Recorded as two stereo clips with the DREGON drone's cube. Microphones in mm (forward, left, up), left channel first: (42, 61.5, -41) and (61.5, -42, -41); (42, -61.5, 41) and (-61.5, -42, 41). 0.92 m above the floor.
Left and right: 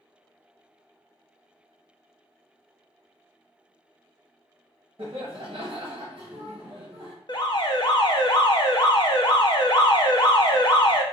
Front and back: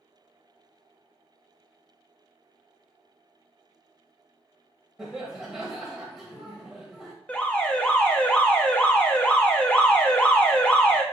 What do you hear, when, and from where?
5.0 s laughter: 115° right, 1.0 m
7.3 s an alarm: 65° left, 0.6 m